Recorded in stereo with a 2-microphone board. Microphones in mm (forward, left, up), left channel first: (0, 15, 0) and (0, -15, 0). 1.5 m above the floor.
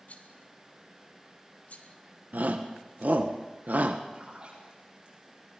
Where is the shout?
70° right (ahead or behind), 1.6 m.